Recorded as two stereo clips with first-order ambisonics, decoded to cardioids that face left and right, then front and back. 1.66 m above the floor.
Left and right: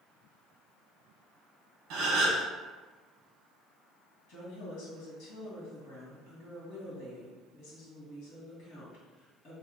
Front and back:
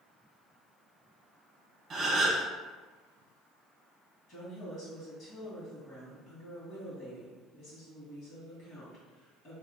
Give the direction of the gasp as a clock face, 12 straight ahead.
4 o'clock.